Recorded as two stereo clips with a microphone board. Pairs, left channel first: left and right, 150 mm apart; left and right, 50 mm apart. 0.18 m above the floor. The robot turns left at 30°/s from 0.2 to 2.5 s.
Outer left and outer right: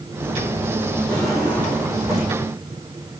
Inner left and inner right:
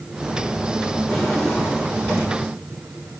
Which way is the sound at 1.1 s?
5° left.